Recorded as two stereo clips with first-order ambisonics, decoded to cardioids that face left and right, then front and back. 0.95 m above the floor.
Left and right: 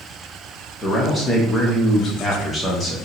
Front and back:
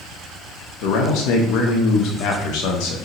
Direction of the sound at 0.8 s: 15° left.